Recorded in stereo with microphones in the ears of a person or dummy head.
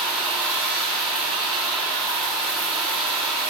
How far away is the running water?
About 3.5 m.